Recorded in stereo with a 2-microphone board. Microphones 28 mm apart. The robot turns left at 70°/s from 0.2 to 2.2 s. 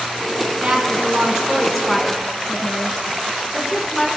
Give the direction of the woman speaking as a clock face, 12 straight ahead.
3 o'clock.